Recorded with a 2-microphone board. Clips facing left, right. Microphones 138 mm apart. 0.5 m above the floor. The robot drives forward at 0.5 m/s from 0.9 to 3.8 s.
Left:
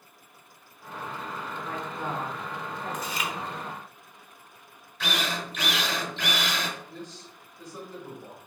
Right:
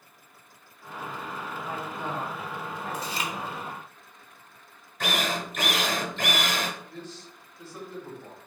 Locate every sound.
1.6 s a woman speaking: 50° left (ahead or behind), 1.7 m
2.9 s chewing: 30° right (ahead or behind), 1.0 m; by 3.3 s 35° right (ahead or behind), 0.9 m
5.0 s a drill: 45° right (ahead or behind), 0.8 m
6.9 s a man speaking: 15° left (ahead or behind), 2 m